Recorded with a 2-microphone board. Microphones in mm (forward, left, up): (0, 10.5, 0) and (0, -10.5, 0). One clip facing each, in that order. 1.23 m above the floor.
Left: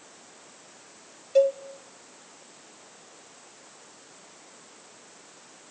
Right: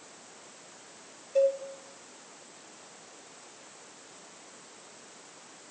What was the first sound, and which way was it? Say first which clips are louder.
A cowbell: left 4 dB; 35° left (ahead or behind).